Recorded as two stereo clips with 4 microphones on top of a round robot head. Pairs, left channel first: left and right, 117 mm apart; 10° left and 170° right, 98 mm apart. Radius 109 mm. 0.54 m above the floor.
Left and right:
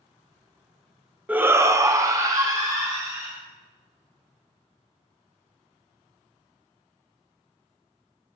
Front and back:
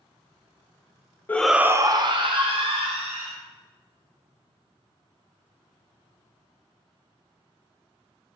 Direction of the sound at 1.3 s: 30° right.